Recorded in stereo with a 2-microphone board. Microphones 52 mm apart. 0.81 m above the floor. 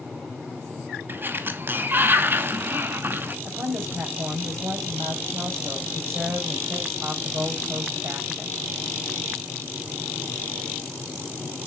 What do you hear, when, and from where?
1.1 s a sliding door: 40° right (ahead or behind), 1.0 m
3.5 s a woman speaking: 50° right (ahead or behind), 3.5 m